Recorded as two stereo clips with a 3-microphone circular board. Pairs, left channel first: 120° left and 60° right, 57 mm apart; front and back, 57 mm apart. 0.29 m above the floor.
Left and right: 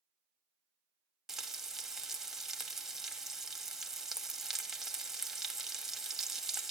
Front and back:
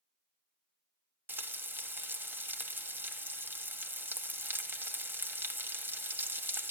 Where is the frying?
140° right, 1.3 m.